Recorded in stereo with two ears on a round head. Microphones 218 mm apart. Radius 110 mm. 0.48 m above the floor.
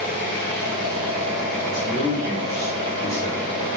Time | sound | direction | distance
0.0 | an engine running | 50° left (ahead or behind) | 1.9 m
1.6 | a man speaking | 15° left (ahead or behind) | 1.5 m